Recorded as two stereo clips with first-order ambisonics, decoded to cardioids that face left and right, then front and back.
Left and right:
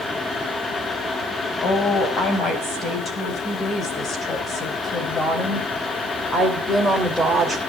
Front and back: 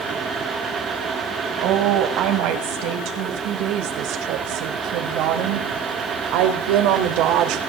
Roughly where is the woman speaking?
Behind left.